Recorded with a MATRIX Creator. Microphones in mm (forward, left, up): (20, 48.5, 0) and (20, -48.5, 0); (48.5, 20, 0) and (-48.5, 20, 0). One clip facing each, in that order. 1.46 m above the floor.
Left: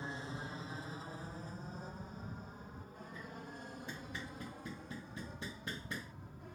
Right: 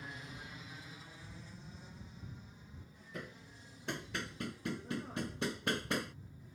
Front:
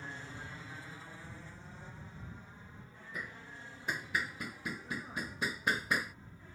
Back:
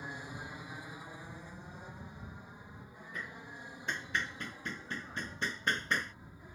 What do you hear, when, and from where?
0.0 s an aircraft: 115° left; by 6.6 s 105° left
3.1 s hammering: 80° right